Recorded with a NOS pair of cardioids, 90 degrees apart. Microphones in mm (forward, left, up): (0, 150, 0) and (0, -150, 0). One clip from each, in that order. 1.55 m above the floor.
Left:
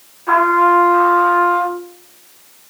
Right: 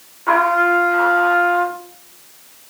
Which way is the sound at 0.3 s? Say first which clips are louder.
Left 3 dB; 30° right.